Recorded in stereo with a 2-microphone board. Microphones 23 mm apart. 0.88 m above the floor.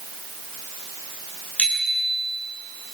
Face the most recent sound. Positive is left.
turn(degrees=90)